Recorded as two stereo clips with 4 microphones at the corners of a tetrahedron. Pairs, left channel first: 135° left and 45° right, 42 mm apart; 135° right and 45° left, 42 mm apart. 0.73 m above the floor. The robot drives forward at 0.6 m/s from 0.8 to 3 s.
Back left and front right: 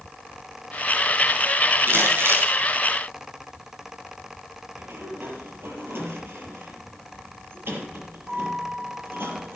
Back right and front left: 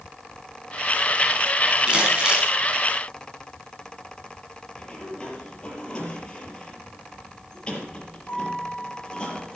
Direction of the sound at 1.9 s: 25° right.